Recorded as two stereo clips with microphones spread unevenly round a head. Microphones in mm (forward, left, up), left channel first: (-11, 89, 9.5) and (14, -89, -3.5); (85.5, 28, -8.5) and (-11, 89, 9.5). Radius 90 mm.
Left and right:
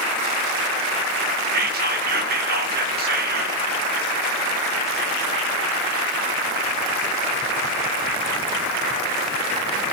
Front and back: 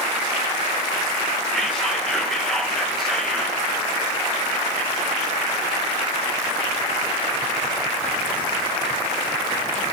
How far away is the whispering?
About 1.8 m.